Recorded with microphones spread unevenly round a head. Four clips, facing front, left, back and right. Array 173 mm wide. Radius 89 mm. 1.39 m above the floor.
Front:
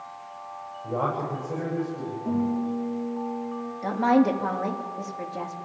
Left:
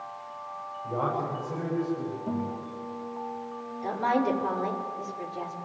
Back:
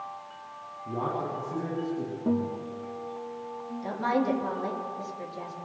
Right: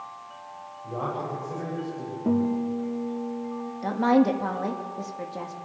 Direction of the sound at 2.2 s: 105° right.